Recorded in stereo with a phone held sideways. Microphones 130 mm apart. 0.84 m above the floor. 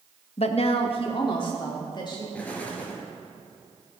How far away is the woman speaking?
About 0.7 m.